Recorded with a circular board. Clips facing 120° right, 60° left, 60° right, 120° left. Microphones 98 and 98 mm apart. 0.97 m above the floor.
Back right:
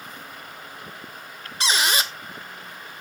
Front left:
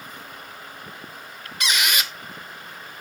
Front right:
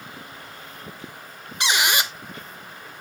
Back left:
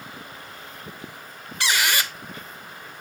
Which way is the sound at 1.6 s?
110° right.